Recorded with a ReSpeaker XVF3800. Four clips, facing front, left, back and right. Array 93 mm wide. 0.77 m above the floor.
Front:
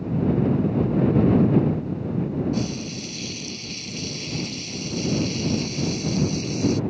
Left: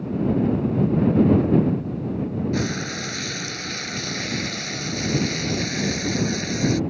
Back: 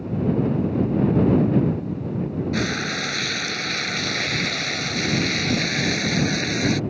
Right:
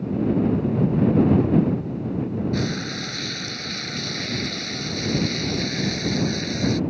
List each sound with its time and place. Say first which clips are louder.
2.5 s frying: even, back 3 dB; 175° left